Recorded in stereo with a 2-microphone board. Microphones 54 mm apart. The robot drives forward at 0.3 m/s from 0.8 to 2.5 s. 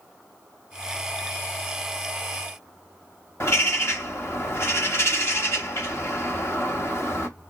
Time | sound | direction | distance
3.4 | a bird | 45° left (ahead or behind) | 0.7 m